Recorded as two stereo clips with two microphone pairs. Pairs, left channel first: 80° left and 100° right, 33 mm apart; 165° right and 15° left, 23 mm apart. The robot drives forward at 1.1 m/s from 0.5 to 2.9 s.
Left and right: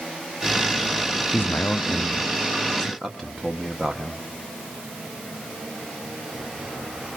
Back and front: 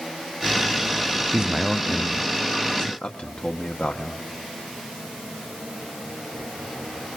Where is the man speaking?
65° left, 0.6 m; by 4.2 s 160° left, 1.6 m.